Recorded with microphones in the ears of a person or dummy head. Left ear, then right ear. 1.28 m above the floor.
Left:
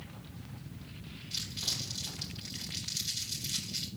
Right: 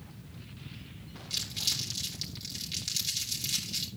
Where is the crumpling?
50° right (ahead or behind), 5 m.